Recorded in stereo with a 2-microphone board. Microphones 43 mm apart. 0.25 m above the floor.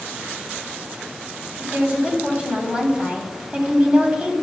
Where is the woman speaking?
30° right (ahead or behind), 1.9 m.